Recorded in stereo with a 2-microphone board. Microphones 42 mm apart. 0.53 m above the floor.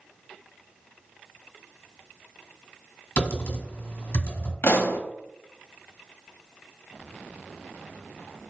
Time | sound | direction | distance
3.2 | typing on a keyboard | 50° left (ahead or behind) | 1.4 m
4.6 | a pop | 65° left (ahead or behind) | 0.6 m